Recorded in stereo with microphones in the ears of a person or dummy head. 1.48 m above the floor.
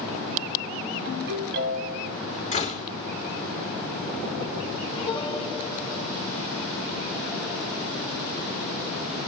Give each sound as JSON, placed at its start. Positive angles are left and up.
{"t": 1.1, "sound": "a ringtone", "side_deg": -55, "distance_m": 6.0}
{"t": 2.5, "sound": "a door slam", "side_deg": 35, "distance_m": 3.5}
{"t": 5.0, "sound": "a piano", "side_deg": 35, "distance_m": 3.0}